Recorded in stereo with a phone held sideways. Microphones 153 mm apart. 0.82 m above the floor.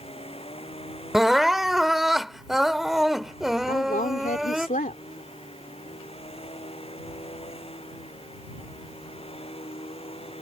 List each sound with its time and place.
0.0 s a machine running: 40° left (ahead or behind)
1.1 s crying: centre (ahead or behind)
3.7 s a woman speaking: 60° left (ahead or behind)